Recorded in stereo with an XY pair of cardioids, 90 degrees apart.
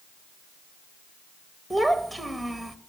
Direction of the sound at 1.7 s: 5° right.